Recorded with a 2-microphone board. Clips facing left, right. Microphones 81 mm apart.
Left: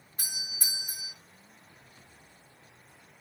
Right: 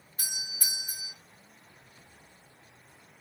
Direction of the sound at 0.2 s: 30° left (ahead or behind).